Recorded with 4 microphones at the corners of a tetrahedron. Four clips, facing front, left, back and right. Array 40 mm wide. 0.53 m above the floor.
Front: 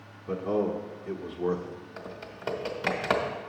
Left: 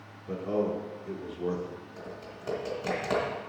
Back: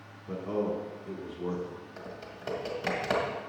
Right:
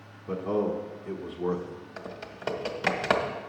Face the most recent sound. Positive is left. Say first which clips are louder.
# right 2 dB, front 2 dB
turn(degrees=-65)